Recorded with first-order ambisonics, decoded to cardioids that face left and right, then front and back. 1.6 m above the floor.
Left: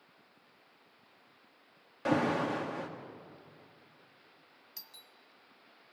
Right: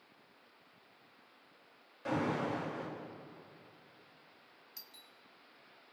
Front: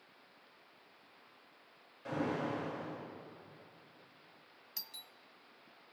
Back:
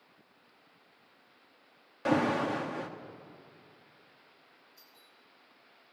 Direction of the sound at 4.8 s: 10° left.